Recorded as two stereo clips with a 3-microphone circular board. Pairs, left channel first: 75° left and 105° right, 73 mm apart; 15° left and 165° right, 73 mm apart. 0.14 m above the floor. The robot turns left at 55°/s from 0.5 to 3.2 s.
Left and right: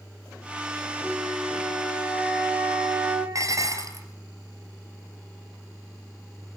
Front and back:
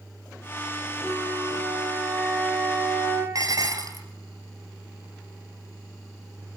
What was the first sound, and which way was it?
A flute, 10° right.